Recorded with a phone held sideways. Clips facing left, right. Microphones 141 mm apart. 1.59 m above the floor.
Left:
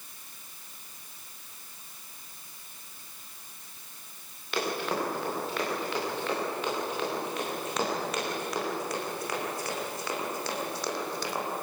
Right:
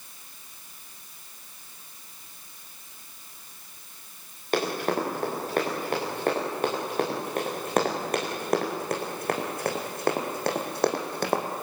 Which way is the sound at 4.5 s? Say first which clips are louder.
Right 4 dB; 45° right (ahead or behind).